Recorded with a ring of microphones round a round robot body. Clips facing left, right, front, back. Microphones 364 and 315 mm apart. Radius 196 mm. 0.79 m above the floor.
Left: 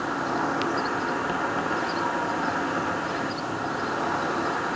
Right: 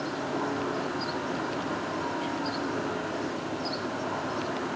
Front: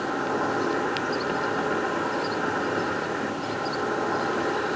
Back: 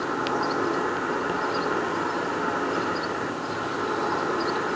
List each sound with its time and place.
0.0 s an insect: 100° left, 0.9 m